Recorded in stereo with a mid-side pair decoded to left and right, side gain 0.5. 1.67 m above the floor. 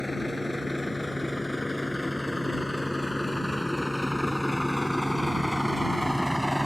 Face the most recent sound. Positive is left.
turn(degrees=0)